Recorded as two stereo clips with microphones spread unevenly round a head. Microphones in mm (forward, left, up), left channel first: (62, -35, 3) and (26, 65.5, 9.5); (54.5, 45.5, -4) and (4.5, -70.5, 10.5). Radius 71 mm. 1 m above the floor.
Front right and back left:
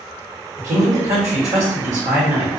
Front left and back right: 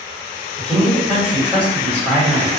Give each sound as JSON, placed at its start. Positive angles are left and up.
{"t": 0.6, "sound": "a man speaking", "azimuth_deg": 150, "distance_m": 1.5}